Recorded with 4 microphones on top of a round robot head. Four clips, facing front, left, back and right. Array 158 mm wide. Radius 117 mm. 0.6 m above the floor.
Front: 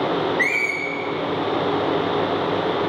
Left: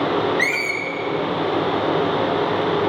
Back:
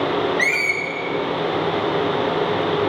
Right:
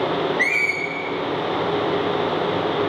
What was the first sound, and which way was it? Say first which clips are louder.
A squeak: left 1 dB, back 1 dB; 135° left.